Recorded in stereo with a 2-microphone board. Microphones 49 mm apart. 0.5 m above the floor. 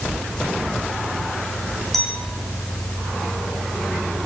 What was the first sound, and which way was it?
A clink, 5° left (ahead or behind).